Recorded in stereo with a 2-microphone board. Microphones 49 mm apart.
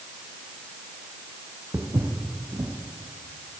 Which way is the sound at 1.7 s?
75° right (ahead or behind).